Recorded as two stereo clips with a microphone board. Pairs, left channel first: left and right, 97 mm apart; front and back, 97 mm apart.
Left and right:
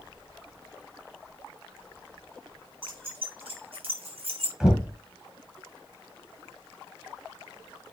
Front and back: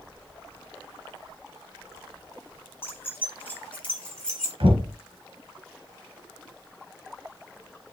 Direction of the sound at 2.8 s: 65° right.